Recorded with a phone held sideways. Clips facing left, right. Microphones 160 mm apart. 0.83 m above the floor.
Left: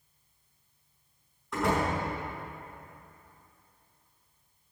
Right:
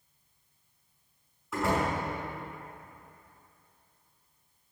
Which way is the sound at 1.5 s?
5° right (ahead or behind).